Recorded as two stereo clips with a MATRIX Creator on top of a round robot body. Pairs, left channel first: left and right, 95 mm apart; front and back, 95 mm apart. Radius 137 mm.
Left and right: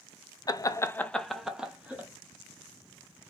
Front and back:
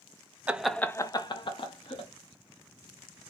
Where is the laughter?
110° left, 0.6 m; by 2.1 s 15° right, 1.1 m.